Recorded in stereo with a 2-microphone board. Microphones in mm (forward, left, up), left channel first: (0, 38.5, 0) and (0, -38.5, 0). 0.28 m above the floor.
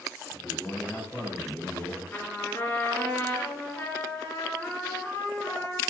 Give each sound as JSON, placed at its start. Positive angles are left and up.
{"t": 0.3, "sound": "a man speaking", "side_deg": 35, "distance_m": 5.5}
{"t": 2.1, "sound": "a trumpet", "side_deg": 25, "distance_m": 4.5}